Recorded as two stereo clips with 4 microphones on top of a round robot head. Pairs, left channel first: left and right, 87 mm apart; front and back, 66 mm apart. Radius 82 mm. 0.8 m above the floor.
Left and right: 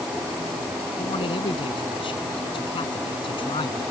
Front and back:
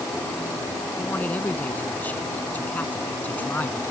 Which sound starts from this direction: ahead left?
A man speaking, at 1.0 s.